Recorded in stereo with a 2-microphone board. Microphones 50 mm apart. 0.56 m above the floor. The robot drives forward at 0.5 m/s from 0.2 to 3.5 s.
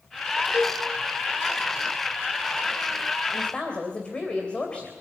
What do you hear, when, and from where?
0.5 s a cowbell: 80° left, 2 m
3.3 s a woman speaking: 25° left (ahead or behind), 3 m